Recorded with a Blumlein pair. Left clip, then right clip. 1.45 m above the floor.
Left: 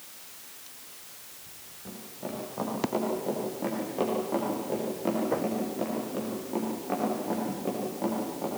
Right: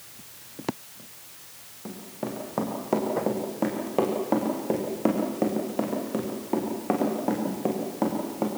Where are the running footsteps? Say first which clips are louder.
Right 4 dB; 30° right, 6 m.